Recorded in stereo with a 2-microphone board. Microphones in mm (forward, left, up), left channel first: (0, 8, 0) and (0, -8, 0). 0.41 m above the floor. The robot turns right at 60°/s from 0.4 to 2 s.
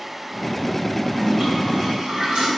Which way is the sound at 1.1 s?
140° right.